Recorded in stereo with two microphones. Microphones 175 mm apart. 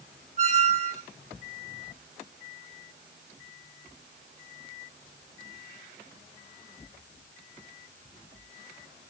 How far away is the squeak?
About 0.7 m.